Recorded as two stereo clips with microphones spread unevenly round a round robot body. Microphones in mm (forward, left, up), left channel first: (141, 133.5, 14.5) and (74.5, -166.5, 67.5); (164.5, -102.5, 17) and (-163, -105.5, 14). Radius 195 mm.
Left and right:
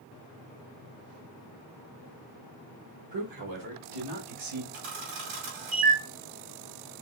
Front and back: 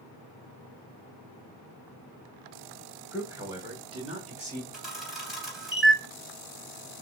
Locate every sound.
3.1 s a man speaking: 95° right, 2.5 m; by 4.6 s 115° right, 3 m
4.7 s a camera shutter: 90° right, 3 m